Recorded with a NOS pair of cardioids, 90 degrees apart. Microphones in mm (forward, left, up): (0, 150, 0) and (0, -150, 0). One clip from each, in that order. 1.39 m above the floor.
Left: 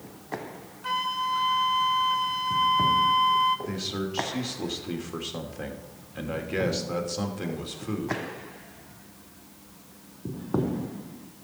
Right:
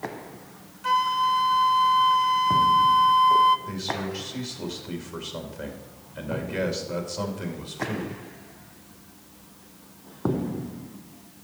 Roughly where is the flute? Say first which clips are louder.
Right 6 dB; ahead.